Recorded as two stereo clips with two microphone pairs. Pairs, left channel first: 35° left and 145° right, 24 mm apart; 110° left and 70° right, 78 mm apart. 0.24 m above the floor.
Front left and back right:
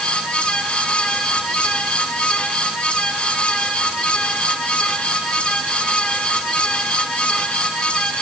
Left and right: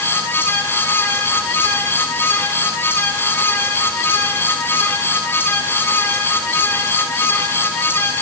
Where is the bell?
No bell in this recording.